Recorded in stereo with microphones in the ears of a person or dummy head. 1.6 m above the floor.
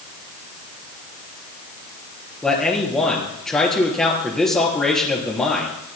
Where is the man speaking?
5° left (ahead or behind), 3.5 m.